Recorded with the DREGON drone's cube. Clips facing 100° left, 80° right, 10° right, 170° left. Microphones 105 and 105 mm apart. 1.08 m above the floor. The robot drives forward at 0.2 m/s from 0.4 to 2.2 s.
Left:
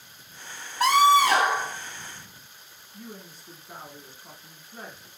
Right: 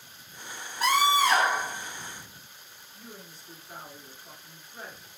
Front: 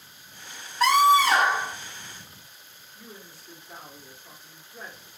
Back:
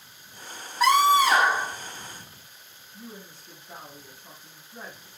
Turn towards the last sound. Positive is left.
turn(degrees=110)